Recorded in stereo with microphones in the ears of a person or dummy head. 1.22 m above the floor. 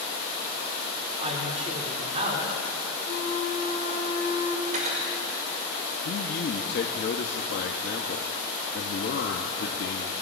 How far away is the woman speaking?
About 2.5 m.